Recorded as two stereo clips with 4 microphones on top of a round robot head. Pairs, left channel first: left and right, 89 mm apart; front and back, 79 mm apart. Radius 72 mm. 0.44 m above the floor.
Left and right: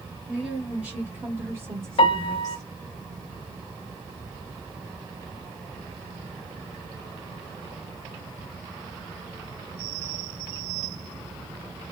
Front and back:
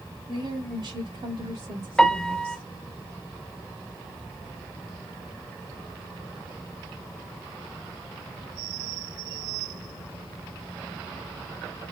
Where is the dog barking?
No dog barking in this recording.